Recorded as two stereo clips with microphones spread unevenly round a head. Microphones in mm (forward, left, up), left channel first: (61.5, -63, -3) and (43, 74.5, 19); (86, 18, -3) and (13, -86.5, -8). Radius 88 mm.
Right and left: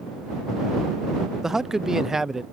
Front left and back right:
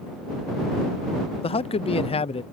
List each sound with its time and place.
1.4 s a man speaking: 15° left